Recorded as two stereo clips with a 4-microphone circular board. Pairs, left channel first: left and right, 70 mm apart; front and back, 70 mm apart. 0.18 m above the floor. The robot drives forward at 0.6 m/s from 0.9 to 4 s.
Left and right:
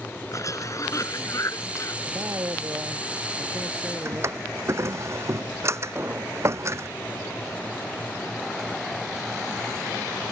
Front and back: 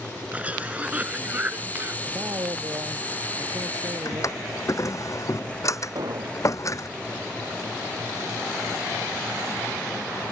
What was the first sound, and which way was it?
A cough, 115° left.